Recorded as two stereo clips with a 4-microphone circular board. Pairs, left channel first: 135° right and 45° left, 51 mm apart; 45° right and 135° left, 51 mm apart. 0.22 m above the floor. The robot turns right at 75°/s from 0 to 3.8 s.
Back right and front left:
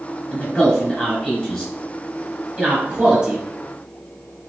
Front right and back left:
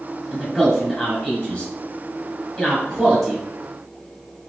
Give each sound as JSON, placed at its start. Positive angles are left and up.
{"t": 0.3, "sound": "a man speaking", "azimuth_deg": -175, "distance_m": 1.6}